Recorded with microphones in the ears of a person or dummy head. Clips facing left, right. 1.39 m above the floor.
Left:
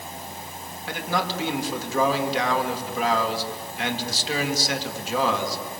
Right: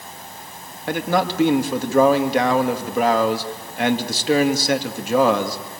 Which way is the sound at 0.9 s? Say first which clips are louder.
Right 7 dB; 50° right (ahead or behind).